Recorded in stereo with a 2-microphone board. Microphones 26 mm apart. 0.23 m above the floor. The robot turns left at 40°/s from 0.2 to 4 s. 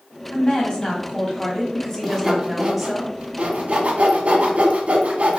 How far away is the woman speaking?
About 1.2 m.